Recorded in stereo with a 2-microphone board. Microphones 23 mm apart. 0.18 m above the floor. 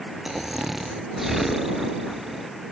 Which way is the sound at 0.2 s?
10° right (ahead or behind).